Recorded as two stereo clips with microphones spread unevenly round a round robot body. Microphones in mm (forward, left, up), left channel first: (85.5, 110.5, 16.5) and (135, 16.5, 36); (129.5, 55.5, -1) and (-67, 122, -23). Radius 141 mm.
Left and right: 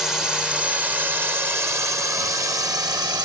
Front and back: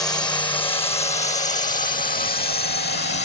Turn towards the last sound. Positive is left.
turn(degrees=-15)